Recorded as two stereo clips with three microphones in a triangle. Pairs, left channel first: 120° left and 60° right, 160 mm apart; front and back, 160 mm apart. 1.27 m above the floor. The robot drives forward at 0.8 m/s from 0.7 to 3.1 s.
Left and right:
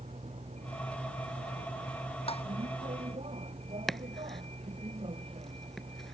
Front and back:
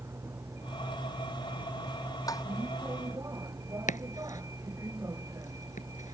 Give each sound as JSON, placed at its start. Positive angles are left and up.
{"t": 0.0, "sound": "a vehicle", "azimuth_deg": -105}
{"t": 2.3, "sound": "tapping", "azimuth_deg": 70}
{"t": 3.9, "sound": "chopping", "azimuth_deg": 30}